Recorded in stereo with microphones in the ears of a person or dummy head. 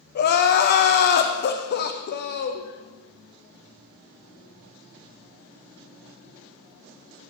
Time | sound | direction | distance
0.1 | crying | 45° left (ahead or behind) | 0.7 m